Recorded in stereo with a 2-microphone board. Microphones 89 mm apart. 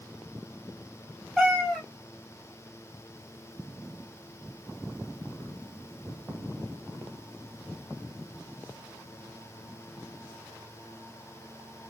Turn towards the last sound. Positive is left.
turn(degrees=5)  # may be behind; listen again after turning